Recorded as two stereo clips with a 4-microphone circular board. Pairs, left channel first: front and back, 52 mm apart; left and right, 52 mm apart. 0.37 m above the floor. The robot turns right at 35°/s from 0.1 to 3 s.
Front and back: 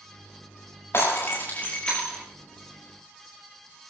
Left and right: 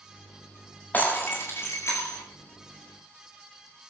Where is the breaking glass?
35° left, 8 m; by 2.2 s 80° left, 8 m.